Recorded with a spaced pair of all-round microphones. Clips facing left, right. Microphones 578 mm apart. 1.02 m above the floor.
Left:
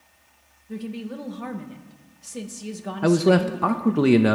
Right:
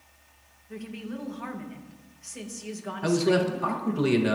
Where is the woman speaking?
60° left (ahead or behind), 1.2 m.